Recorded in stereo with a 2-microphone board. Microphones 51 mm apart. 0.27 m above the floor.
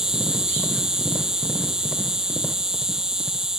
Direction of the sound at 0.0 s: 15° right (ahead or behind).